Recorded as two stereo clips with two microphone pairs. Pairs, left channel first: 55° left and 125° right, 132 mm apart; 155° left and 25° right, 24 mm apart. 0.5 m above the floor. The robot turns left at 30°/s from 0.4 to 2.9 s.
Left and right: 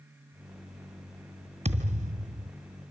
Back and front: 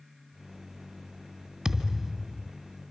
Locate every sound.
1.6 s a thud: 90° right, 1.7 m; by 2.5 s 115° right, 1.7 m